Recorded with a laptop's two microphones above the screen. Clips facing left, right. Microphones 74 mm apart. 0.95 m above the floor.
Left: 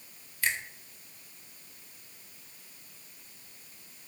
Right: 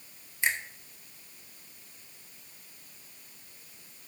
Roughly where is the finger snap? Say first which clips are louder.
Right 2 dB; right.